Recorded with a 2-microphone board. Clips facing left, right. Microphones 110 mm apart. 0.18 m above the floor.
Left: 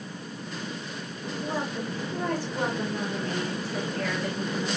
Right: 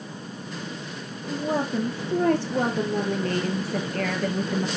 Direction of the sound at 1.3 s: 70° right (ahead or behind).